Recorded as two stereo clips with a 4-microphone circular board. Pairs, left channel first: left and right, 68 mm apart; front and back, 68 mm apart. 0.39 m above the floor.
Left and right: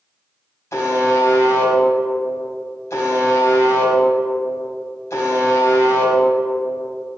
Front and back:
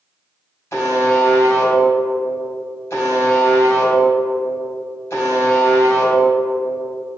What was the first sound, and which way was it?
A buzzer, 45° left.